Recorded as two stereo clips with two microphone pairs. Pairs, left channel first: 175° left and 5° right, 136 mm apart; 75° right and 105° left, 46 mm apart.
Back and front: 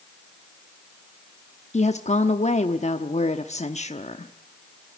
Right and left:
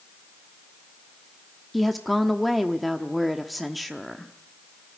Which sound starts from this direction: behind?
A woman speaking, at 1.7 s.